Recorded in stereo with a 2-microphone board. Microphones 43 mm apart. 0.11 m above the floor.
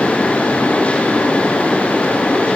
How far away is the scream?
I don't hear a scream.